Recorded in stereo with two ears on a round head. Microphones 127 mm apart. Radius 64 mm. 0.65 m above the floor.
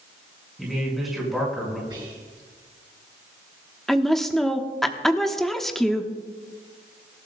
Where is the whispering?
30° right (ahead or behind), 6 m.